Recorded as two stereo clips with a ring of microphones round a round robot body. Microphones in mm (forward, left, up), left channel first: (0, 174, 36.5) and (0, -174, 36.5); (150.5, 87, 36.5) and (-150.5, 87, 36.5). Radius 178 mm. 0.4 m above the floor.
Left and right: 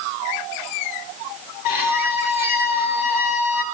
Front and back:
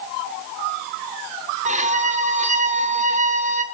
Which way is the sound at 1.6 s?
115° left.